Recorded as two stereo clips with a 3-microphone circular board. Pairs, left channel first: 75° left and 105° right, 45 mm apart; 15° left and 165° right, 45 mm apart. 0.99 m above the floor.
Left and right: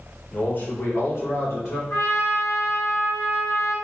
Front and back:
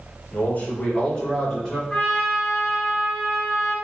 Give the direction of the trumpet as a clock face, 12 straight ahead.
9 o'clock.